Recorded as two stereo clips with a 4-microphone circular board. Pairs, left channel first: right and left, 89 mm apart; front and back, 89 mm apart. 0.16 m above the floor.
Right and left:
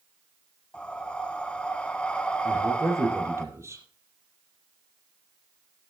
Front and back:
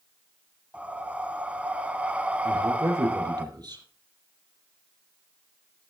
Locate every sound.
0.7 s breathing: 140° right, 1.2 m
2.5 s a man speaking: 145° left, 5 m